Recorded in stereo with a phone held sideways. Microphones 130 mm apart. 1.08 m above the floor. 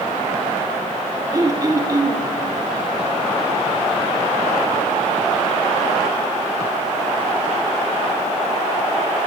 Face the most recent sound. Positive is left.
turn(degrees=-30)  # may be behind; listen again after turning